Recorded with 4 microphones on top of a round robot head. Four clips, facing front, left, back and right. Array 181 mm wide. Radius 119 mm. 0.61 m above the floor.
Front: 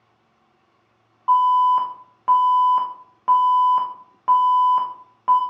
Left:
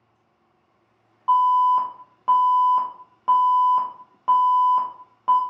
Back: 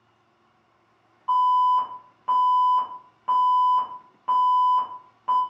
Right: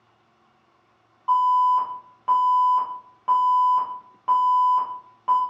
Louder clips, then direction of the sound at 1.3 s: Left 1 dB, front 4 dB; 30° left.